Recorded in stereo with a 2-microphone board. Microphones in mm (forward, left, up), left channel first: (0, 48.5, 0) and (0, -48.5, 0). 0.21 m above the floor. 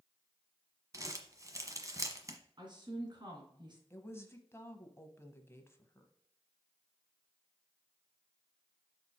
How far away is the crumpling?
About 1.1 m.